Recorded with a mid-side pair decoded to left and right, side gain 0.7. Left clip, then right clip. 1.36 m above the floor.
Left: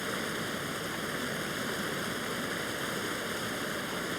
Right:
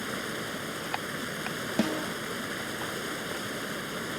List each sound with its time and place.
0.0 s running water: straight ahead
1.8 s a snare drum: 65° right